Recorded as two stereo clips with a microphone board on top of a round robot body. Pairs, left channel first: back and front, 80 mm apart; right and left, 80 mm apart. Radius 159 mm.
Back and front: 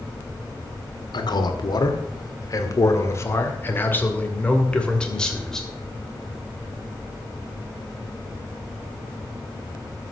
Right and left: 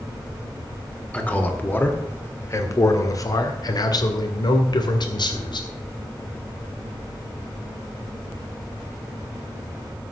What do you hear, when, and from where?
1.1 s a man speaking: 165° right, 2.0 m; by 5.7 s 95° right, 2.5 m